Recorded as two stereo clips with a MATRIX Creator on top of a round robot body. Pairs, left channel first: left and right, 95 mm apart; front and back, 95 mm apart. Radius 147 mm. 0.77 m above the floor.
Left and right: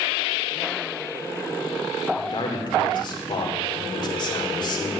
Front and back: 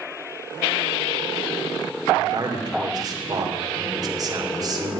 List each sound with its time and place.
2.2 s a man speaking: 130° left, 2.5 m